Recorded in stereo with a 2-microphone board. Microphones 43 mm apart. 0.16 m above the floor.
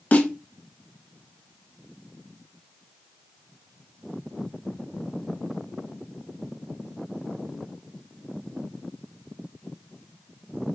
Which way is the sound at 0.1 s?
40° left (ahead or behind).